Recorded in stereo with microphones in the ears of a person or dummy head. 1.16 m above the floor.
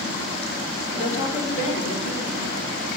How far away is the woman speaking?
About 4 m.